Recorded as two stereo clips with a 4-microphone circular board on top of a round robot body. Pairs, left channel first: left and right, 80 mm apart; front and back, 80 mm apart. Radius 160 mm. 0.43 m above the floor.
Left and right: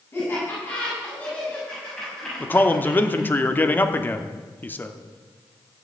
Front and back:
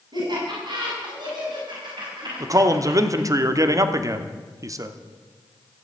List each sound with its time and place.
0.1 s laughter: 155° left, 6.5 m; by 3.3 s 175° right, 4.5 m
2.4 s a man speaking: 150° left, 1.2 m